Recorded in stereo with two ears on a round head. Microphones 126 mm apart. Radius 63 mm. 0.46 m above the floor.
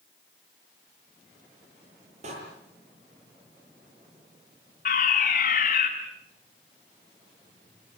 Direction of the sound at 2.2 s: 55° right (ahead or behind).